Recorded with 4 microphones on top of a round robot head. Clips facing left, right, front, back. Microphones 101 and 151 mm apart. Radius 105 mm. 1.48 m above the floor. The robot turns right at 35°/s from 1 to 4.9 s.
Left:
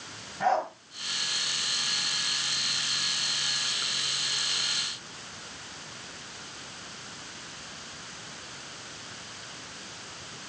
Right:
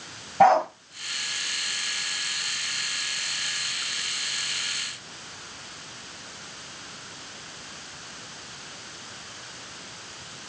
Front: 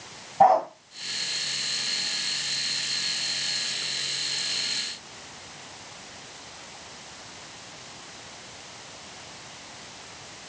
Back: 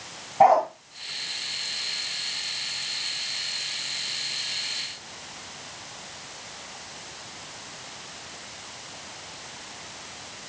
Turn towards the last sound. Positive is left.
turn(degrees=45)